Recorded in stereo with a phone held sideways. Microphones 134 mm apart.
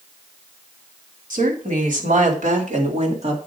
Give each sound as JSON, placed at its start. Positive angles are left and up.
{"t": 1.3, "sound": "a woman speaking", "side_deg": -85, "distance_m": 3.5}